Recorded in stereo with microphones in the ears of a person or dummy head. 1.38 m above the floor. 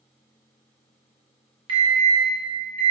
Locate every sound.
1.7 s an alarm: 30° right (ahead or behind), 1.2 m